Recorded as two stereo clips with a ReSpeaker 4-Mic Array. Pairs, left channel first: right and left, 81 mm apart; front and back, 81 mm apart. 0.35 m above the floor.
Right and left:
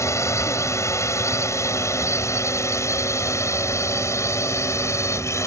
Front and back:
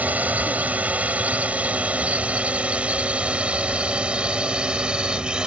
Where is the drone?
120° right; by 5.5 s 110° right.